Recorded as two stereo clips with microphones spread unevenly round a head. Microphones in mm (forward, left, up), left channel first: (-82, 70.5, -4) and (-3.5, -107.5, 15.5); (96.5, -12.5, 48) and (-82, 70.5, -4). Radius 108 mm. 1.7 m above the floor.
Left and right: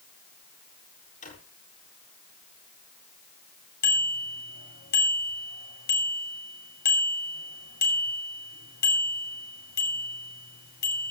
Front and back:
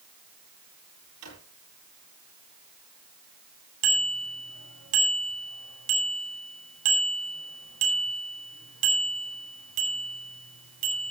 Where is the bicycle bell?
150° left, 9.5 m.